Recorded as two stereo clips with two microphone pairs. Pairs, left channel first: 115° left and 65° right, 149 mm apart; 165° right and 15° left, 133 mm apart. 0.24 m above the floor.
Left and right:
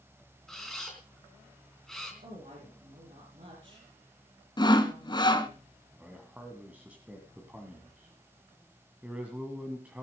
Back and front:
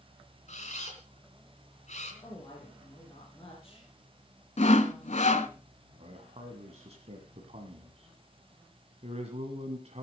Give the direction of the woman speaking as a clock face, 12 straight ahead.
3 o'clock.